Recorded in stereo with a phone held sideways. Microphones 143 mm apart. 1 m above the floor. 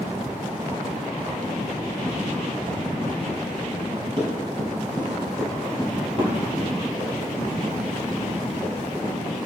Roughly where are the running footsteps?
Right.